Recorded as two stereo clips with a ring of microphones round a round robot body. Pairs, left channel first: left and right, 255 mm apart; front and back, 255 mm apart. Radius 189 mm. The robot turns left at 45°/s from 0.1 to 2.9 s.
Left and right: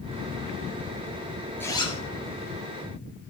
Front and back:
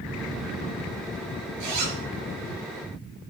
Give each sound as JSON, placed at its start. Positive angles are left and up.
{"t": 1.6, "sound": "a zipper", "azimuth_deg": 175, "distance_m": 5.0}